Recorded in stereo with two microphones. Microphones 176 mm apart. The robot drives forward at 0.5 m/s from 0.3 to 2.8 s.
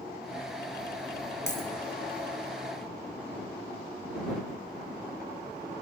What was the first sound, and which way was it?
A dropped coin, 75° left (ahead or behind).